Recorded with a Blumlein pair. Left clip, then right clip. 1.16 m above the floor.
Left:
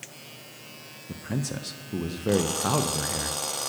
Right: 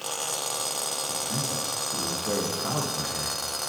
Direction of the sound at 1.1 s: 65° left.